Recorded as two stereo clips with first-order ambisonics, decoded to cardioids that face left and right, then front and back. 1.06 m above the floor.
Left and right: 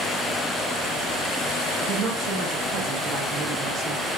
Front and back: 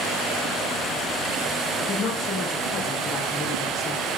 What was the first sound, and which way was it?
A woman speaking, 60° right.